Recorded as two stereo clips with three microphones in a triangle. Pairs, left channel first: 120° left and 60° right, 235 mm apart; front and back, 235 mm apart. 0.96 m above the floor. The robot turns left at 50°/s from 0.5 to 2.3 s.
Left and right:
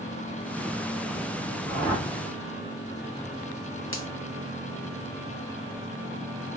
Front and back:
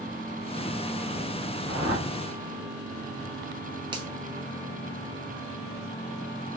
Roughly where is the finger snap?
Left.